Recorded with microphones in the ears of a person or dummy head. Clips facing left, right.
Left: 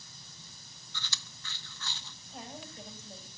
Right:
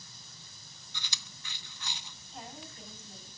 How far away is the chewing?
About 0.6 m.